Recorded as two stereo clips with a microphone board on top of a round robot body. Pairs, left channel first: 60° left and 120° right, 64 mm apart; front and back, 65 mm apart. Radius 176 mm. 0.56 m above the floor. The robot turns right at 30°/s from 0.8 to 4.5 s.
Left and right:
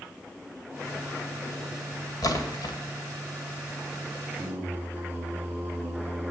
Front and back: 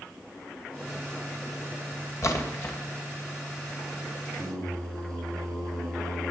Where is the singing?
170° left, 3.5 m; by 6.3 s 175° left, 3.5 m.